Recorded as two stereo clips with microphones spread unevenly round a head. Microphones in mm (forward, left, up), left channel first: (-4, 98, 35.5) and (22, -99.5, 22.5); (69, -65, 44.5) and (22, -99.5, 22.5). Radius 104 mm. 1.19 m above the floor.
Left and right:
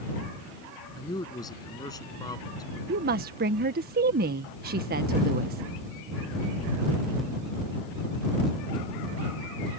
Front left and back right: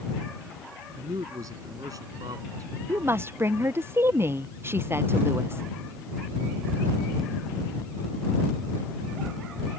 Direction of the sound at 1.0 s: 170° left.